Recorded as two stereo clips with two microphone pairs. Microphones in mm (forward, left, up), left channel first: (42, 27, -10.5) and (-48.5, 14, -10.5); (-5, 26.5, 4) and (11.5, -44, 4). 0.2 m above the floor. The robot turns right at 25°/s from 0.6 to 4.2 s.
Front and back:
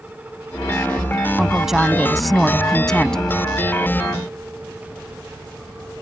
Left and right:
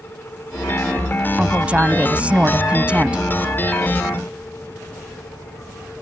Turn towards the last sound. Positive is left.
turn(degrees=-30)